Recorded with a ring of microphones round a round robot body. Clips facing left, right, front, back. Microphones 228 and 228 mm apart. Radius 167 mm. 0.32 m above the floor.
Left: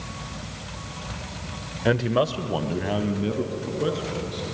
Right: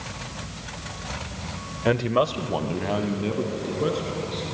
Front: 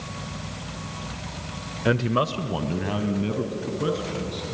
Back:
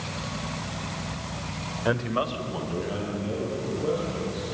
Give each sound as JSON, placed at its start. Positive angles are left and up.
{"t": 1.9, "sound": "a man speaking", "azimuth_deg": 10, "distance_m": 0.9}